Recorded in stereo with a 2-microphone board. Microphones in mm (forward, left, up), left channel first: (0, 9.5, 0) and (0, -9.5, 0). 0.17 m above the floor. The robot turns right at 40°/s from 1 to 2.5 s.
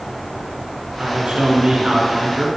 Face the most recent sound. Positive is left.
turn(degrees=-35)